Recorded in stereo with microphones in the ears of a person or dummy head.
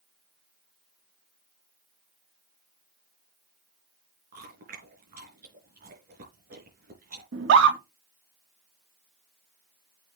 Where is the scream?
65° right (ahead or behind), 2.0 m.